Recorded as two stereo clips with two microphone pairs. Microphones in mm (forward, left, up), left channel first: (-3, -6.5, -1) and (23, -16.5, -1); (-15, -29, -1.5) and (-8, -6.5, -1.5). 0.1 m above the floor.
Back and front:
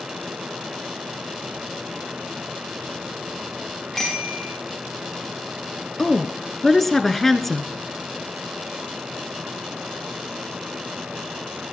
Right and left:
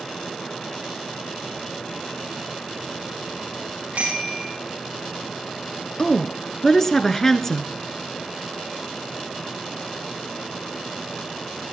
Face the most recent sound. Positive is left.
turn(degrees=-140)